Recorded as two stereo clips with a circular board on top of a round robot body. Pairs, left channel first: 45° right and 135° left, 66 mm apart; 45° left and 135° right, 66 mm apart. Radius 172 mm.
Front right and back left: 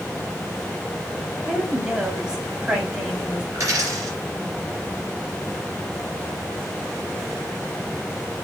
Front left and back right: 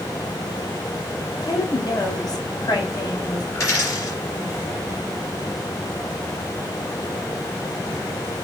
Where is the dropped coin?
95° left, 4 m.